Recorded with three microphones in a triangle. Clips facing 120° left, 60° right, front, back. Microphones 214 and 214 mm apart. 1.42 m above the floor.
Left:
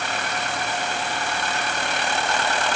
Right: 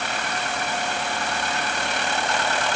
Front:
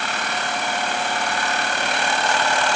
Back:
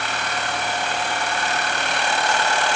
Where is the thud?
No thud in this recording.